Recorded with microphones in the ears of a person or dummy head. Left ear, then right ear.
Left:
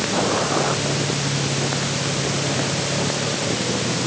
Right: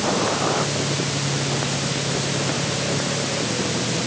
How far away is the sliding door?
No sliding door in this recording.